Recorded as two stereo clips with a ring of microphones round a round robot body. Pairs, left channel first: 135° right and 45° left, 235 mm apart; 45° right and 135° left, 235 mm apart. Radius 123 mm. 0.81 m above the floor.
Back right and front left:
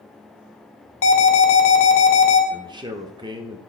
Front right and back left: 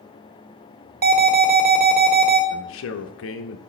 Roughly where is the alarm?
Behind.